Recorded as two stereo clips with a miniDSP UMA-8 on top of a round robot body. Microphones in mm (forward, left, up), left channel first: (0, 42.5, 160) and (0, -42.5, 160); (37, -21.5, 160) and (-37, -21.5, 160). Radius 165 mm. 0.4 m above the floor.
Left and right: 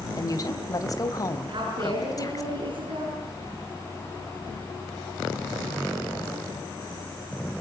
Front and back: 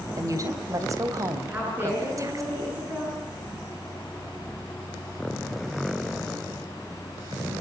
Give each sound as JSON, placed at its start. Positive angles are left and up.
{"t": 0.2, "sound": "a woman speaking", "azimuth_deg": 135, "distance_m": 3.0}
{"t": 1.5, "sound": "a woman speaking", "azimuth_deg": -120, "distance_m": 8.5}